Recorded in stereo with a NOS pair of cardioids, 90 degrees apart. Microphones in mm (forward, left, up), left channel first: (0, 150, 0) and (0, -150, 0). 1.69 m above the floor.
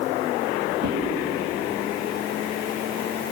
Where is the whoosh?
55° right, 5.5 m.